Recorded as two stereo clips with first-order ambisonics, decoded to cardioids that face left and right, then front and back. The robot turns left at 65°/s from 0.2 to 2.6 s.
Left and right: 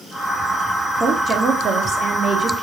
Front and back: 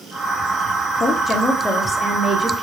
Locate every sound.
1.0 s a woman speaking: 30° right, 1.0 m; by 2.6 s 135° right, 1.0 m